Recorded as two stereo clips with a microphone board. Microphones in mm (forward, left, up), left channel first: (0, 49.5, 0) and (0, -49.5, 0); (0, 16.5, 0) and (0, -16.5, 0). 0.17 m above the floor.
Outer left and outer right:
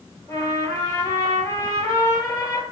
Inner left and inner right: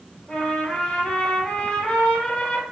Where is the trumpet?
30° left (ahead or behind), 2 m.